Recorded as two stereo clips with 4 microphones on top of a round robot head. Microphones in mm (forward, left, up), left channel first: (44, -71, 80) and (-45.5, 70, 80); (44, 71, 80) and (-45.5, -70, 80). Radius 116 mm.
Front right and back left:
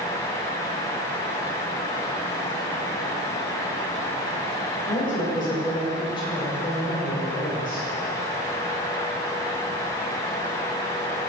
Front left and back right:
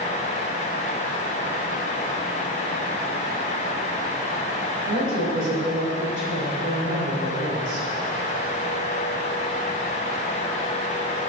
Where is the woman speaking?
120° right, 4.5 m.